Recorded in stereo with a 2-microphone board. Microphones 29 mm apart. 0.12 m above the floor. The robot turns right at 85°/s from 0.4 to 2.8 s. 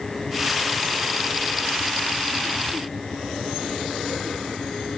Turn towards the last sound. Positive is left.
No sound to turn to.